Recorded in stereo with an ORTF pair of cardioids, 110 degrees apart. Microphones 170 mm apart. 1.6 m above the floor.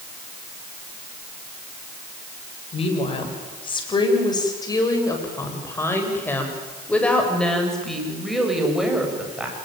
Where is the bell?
I don't hear a bell.